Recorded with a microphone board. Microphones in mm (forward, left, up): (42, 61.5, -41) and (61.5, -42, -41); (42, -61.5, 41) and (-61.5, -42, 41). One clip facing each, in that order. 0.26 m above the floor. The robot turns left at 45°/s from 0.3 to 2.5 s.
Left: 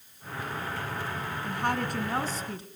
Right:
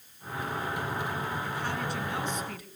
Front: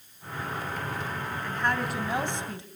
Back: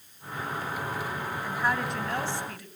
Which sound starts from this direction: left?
A woman speaking, at 1.4 s.